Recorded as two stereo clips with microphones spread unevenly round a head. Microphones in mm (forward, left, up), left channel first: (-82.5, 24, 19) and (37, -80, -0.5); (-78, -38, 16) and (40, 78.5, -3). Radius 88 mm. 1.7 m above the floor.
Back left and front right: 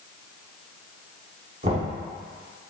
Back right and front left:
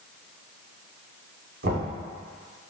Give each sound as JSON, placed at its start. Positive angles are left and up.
{"t": 1.6, "sound": "knocking", "azimuth_deg": 15, "distance_m": 4.0}